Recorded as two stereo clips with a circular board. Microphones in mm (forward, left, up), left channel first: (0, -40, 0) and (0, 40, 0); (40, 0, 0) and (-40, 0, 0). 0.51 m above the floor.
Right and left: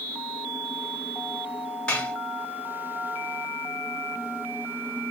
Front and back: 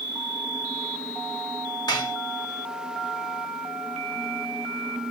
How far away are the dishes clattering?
About 1.5 m.